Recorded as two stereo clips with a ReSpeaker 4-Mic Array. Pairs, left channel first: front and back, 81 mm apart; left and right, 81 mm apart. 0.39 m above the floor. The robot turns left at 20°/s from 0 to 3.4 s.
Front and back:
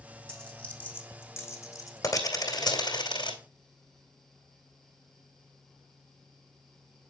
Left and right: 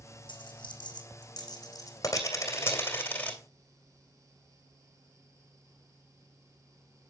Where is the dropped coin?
80° left, 2.5 m; by 3.4 s 15° left, 2.5 m.